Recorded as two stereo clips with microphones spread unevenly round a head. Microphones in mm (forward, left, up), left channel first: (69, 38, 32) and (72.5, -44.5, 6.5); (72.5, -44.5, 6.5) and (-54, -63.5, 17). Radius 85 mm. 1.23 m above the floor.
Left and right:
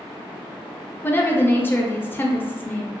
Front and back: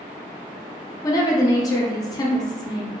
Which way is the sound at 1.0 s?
15° left.